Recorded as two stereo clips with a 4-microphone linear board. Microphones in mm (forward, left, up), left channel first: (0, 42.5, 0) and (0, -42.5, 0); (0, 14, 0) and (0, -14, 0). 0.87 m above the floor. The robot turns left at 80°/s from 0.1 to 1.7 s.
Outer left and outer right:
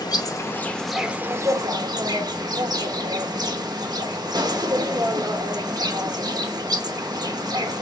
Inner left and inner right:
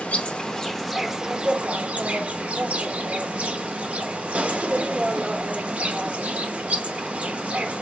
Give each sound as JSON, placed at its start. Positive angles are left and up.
{"t": 0.0, "sound": "an insect", "azimuth_deg": 65, "distance_m": 0.7}